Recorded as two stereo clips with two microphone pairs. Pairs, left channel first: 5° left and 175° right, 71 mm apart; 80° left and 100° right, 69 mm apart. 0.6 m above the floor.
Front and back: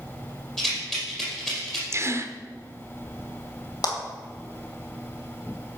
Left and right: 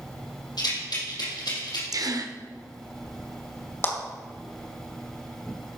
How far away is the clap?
About 2.5 m.